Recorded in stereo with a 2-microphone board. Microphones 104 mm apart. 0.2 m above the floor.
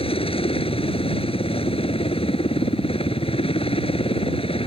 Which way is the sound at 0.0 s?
65° left (ahead or behind).